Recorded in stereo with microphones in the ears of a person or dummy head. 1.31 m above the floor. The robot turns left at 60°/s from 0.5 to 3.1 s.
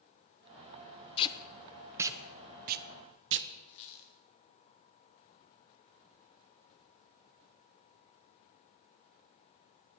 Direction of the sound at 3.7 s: 35° left (ahead or behind).